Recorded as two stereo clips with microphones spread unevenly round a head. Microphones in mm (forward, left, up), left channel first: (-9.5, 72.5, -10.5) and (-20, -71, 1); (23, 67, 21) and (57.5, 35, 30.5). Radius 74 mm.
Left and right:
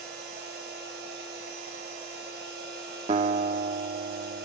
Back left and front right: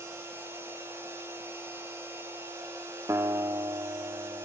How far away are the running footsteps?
No running footsteps in this recording.